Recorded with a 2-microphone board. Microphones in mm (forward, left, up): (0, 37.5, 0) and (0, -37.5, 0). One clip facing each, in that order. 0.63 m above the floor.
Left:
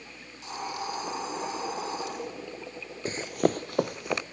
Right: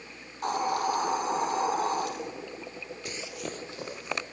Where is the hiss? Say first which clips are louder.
Right 8 dB; 55° right (ahead or behind), 5.5 m.